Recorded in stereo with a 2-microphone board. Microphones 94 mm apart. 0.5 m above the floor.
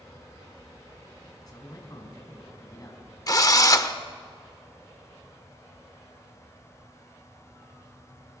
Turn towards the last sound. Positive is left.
turn(degrees=40)  # may be behind; listen again after turning